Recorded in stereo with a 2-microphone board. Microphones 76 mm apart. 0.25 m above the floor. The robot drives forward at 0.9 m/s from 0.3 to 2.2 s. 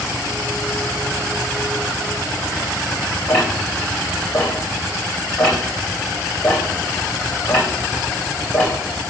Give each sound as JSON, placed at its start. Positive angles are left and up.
{"t": 3.3, "sound": "ticking", "side_deg": 20, "distance_m": 3.5}